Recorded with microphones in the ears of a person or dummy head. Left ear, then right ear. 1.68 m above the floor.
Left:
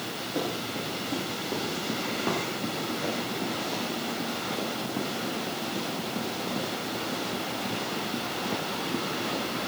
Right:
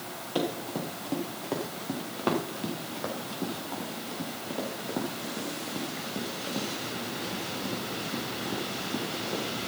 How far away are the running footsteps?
About 6 m.